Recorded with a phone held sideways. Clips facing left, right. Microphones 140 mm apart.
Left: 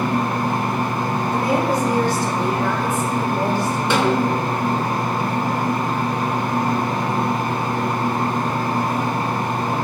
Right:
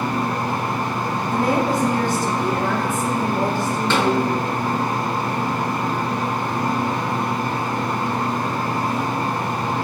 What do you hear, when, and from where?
0.0 s a fan: 50° left (ahead or behind), 0.8 m
1.3 s a woman speaking: 50° right (ahead or behind), 0.8 m
3.9 s a snare drum: 15° left (ahead or behind), 0.5 m